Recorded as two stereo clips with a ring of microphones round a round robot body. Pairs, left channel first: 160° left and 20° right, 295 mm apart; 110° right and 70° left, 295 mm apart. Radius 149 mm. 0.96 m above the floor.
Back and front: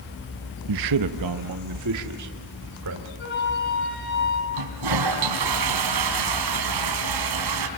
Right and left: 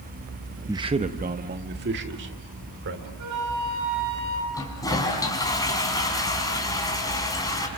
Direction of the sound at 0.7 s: 15° right.